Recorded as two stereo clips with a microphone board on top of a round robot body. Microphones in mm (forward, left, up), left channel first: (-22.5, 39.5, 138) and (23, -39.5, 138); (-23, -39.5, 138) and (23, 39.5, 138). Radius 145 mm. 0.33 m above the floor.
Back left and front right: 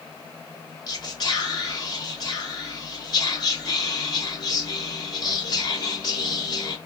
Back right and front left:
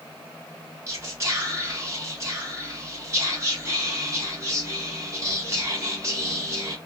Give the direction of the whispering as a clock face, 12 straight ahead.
8 o'clock.